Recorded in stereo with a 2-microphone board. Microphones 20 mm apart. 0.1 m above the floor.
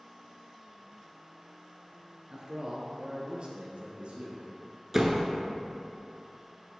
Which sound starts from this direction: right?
A man speaking, at 2.3 s.